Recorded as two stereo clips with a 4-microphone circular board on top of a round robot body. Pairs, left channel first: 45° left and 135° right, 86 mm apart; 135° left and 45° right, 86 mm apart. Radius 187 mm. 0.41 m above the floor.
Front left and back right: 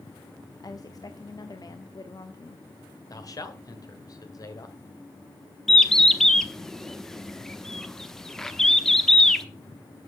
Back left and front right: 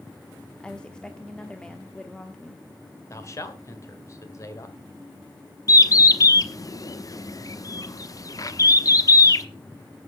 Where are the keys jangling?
I don't hear keys jangling.